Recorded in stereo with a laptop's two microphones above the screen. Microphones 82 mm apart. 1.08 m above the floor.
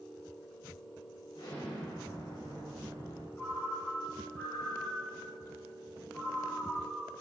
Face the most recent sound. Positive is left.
turn(degrees=25)  # may be behind; listen again after turning